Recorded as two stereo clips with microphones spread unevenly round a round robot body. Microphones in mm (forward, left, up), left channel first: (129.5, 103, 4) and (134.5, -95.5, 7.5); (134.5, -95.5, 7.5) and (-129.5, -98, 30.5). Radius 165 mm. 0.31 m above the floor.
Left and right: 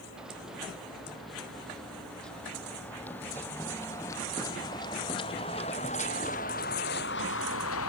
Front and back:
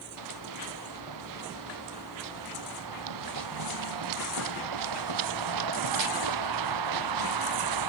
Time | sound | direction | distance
0.2 | running footsteps | 175° right | ?